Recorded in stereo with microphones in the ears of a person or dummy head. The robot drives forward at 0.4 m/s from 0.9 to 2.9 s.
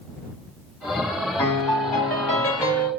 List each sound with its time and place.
1.4 s a piano: 15° left (ahead or behind), 1.6 m; by 2.9 s 20° left (ahead or behind), 1.2 m